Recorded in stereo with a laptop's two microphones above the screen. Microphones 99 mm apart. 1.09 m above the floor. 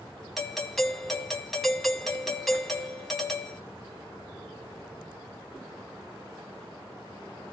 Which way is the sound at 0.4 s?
Centre (ahead or behind).